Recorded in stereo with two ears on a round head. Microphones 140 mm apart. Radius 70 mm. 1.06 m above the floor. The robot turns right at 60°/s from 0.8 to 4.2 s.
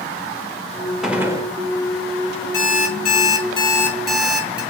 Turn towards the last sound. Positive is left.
turn(degrees=-170)